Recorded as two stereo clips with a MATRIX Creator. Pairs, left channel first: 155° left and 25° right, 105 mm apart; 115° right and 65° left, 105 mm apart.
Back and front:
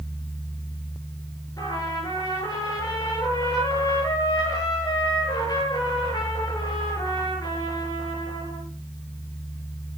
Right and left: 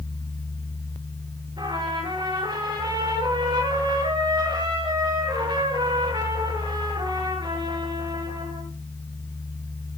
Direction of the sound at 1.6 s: 105° left.